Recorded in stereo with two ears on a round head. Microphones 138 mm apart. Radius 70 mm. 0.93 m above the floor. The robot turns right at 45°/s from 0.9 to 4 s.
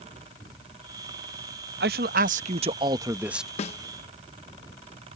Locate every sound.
1.8 s a man speaking: 75° right; by 3.5 s straight ahead
3.6 s a snare drum: 45° left (ahead or behind); by 3.8 s 40° left (ahead or behind)